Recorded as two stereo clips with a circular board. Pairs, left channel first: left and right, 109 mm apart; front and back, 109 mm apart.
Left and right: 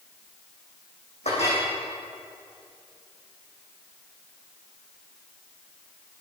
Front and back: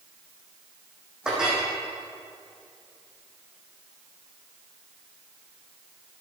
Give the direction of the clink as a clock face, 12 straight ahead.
9 o'clock.